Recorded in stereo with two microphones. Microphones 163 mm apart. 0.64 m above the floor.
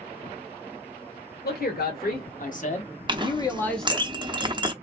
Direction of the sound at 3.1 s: 30° right (ahead or behind).